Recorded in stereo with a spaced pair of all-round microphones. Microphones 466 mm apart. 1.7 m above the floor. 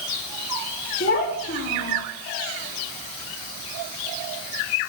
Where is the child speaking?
25° left (ahead or behind), 2 m.